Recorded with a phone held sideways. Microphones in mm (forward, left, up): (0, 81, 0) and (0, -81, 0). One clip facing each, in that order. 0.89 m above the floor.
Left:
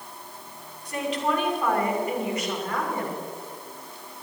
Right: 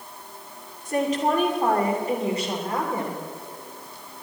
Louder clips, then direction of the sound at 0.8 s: Right 4 dB; 45° right (ahead or behind).